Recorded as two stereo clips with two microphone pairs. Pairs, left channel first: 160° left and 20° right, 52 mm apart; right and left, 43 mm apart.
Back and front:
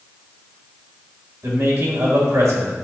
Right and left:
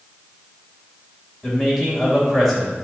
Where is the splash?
No splash in this recording.